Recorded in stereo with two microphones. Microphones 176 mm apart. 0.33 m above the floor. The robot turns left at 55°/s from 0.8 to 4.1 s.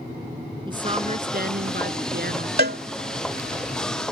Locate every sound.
0.7 s a woman speaking: 25° right; by 2.5 s 120° right
2.6 s a cowbell: 65° right (ahead or behind); by 2.8 s 75° right (ahead or behind)